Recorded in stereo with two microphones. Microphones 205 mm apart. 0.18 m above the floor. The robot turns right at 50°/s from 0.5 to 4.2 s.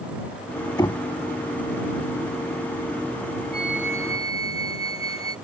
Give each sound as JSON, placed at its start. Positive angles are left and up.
{"t": 0.8, "sound": "knocking", "side_deg": 20}
{"t": 3.5, "sound": "a flute", "azimuth_deg": -145}